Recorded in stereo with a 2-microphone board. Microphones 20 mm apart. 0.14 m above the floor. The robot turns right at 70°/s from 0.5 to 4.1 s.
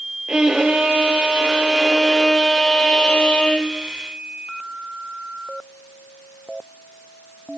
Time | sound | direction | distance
0.3 | a violin | 130° right | 0.8 m